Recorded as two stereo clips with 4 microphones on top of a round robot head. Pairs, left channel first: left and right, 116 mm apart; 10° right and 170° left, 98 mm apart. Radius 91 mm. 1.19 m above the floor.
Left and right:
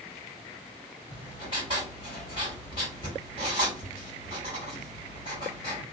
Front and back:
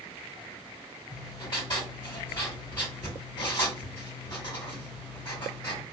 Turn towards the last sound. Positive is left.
turn(degrees=30)